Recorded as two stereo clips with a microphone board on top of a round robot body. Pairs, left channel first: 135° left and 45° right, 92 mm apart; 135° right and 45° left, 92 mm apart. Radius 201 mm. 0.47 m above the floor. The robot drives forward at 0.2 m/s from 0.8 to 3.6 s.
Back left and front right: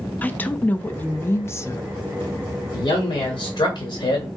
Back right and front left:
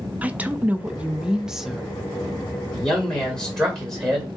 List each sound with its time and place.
0.2 s a woman speaking: 95° left, 0.7 m; by 1.9 s 135° left, 0.7 m
2.7 s a man speaking: 140° left, 1.4 m; by 4.3 s 145° left, 1.5 m